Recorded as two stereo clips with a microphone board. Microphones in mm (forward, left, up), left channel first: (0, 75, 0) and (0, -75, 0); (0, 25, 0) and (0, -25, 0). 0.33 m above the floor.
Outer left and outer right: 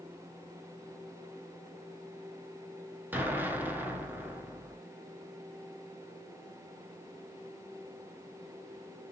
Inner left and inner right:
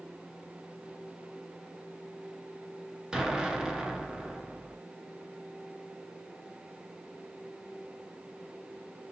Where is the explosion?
15° right (ahead or behind), 0.7 m.